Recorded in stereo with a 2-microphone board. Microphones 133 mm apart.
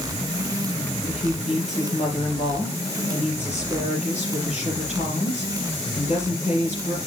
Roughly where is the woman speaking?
Left.